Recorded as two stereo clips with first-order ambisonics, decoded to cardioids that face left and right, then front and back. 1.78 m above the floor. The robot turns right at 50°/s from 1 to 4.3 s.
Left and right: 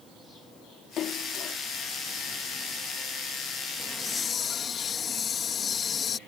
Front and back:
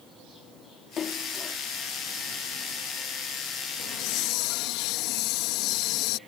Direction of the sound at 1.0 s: 50° left.